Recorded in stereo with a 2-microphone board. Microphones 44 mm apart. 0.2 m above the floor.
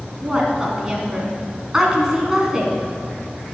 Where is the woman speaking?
15° right (ahead or behind), 1.8 m.